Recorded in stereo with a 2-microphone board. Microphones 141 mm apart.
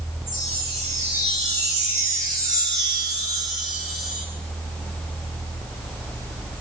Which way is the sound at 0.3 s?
25° right (ahead or behind).